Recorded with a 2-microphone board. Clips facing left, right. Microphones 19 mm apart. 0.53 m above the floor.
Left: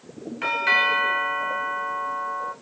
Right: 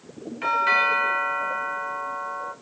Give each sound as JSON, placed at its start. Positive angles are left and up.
{"t": 0.4, "sound": "a doorbell", "side_deg": 15, "distance_m": 1.7}